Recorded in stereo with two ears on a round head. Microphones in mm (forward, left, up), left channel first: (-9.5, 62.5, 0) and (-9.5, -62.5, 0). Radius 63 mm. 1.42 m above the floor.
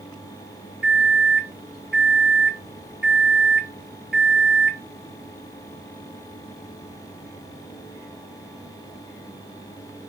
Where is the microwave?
5° right (ahead or behind), 0.7 m.